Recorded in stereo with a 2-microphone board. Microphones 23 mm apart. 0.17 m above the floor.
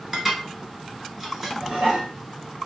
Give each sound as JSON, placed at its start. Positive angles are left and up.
{"t": 0.1, "sound": "dishes clattering", "side_deg": -15, "distance_m": 1.8}
{"t": 1.6, "sound": "dishes clattering", "side_deg": -35, "distance_m": 1.5}